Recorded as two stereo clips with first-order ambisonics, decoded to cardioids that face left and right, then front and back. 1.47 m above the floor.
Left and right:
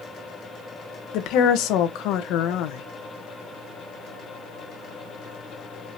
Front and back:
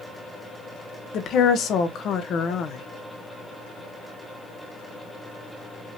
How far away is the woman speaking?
About 0.9 m.